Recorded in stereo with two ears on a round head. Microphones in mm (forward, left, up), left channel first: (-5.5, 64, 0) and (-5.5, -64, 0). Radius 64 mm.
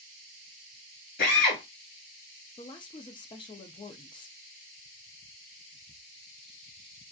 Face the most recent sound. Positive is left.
turn(degrees=35)  # may be behind; listen again after turning